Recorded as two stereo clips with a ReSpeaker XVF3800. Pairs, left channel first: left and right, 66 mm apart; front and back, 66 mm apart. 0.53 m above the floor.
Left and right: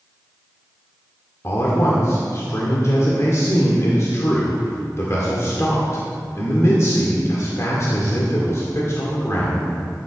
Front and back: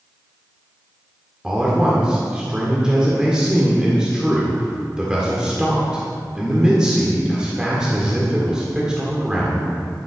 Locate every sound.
1.4 s a man speaking: 105° left, 1.8 m